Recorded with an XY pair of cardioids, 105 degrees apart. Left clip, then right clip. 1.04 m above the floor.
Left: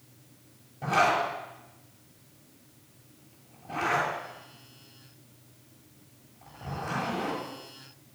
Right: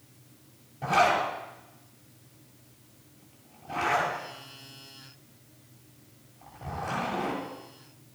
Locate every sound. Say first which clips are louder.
0.8 s a zipper: right 1 dB; 5° right, 7.5 m